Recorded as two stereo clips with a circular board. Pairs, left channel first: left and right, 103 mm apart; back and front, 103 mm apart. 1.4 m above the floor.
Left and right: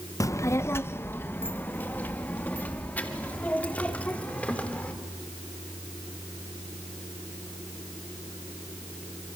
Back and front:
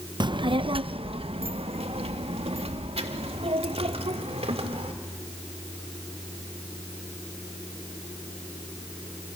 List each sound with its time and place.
0.2 s a child speaking: 35° left, 0.6 m; by 4.9 s 15° left, 3.5 m